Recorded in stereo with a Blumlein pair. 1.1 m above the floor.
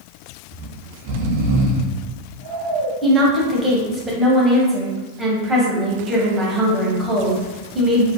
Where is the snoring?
50° right, 0.5 m.